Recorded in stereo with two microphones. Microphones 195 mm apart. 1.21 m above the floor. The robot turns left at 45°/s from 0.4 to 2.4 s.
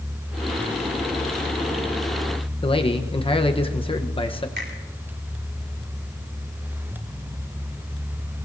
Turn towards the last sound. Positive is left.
turn(degrees=-55)  # may be behind; listen again after turning